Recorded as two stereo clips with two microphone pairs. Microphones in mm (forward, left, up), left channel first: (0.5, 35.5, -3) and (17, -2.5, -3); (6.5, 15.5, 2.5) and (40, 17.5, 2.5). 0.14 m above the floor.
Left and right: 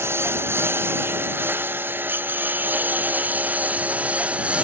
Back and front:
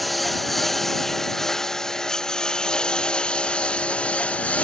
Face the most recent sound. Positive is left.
turn(degrees=-130)